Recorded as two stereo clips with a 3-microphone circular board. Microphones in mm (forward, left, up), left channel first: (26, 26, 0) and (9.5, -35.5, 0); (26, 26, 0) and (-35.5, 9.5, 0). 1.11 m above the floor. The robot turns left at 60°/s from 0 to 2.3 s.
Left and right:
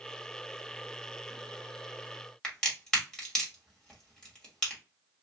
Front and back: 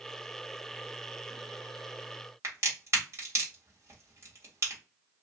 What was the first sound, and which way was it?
A crack, 155° left.